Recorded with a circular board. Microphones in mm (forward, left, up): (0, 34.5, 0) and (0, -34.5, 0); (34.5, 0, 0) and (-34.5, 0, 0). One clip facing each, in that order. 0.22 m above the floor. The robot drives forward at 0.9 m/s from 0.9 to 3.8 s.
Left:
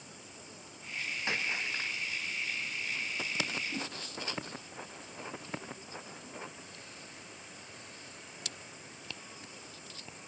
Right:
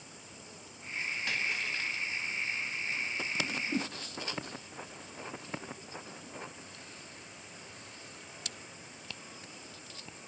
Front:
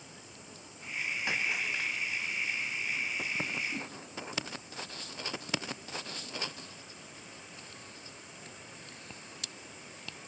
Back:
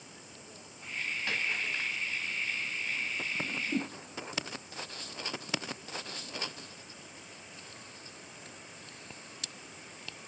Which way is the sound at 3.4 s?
130° right.